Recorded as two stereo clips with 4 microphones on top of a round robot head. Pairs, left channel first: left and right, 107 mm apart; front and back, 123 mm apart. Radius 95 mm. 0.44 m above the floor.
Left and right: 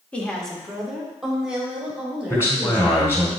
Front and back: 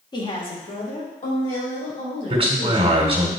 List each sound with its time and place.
0.1 s a woman speaking: 20° left, 1.6 m; by 3.3 s 10° right, 6 m
2.3 s a man speaking: 155° left, 1.8 m